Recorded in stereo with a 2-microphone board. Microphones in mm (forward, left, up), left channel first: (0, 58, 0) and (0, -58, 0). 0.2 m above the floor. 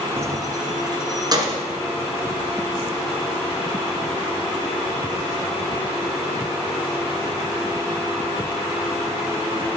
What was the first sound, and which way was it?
Keys jangling, 25° right (ahead or behind).